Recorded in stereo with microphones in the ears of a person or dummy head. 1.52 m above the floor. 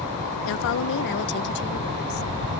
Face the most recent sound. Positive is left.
turn(degrees=50)  # may be behind; listen again after turning